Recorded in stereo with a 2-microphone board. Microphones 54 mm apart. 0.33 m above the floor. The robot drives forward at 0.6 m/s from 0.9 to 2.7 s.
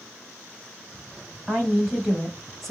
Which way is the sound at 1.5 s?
5° left (ahead or behind).